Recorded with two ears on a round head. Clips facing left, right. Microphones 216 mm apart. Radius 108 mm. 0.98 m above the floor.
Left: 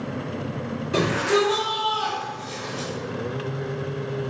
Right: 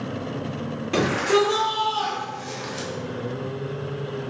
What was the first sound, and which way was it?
A shout, 70° right (ahead or behind).